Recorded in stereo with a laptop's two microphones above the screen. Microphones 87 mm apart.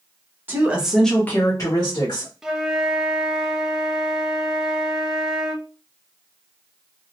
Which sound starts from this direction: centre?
A flute, at 2.4 s.